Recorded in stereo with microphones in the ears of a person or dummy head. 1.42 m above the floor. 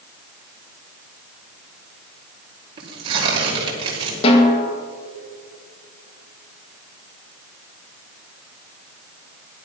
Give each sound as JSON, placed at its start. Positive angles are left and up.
{"t": 2.8, "sound": "tearing paper", "side_deg": -25, "distance_m": 4.5}
{"t": 4.2, "sound": "a snare drum", "side_deg": 35, "distance_m": 2.0}